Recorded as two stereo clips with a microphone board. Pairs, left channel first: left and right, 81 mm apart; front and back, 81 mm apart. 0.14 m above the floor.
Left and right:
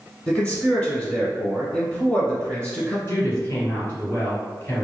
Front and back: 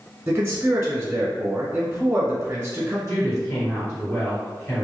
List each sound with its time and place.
0.3 s a man speaking: 145° left, 1.1 m
3.1 s a woman speaking: 35° left, 2.0 m